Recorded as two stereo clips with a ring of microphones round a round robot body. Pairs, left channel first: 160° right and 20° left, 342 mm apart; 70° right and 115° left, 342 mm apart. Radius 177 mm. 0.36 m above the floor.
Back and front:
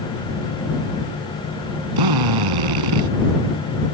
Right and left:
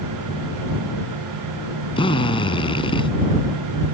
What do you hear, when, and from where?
2.0 s a drill: 10° left